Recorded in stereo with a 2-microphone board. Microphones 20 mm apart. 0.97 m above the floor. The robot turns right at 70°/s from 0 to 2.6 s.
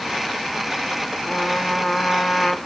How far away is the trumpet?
About 0.8 m.